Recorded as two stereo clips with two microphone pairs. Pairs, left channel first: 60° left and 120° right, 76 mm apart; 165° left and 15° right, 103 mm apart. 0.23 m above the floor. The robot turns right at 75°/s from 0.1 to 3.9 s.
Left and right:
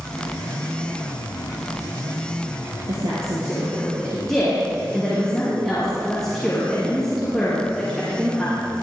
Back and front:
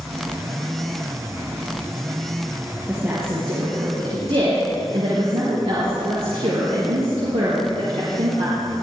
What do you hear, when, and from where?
2.9 s a woman speaking: 100° right, 5 m; by 8.6 s 25° right, 5 m